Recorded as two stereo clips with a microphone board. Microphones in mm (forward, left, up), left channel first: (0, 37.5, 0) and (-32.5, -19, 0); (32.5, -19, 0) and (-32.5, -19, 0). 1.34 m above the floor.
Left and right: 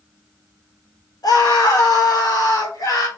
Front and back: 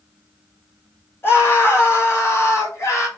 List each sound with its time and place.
1.2 s a scream: 55° left, 4.5 m; by 3.1 s 45° left, 5 m